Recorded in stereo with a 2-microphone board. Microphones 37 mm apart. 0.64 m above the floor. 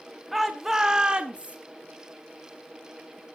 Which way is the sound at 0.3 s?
Centre (ahead or behind).